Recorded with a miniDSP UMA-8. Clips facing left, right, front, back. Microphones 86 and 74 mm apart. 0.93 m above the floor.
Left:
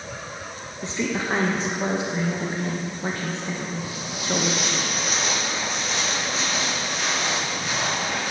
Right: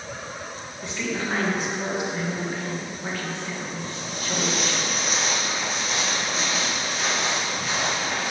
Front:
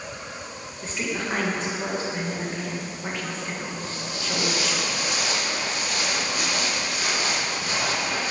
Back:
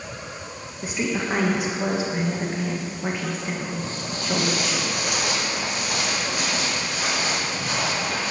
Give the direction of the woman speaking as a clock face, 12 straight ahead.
8 o'clock.